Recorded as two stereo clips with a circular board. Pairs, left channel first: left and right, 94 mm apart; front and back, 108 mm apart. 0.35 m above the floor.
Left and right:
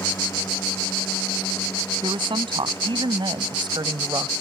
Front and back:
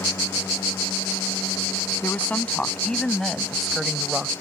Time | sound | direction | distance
2.0 | a woman speaking | 75° right | ?